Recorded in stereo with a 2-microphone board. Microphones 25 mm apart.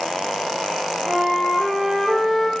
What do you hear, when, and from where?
1.1 s a flute: 15° right (ahead or behind), 1.1 m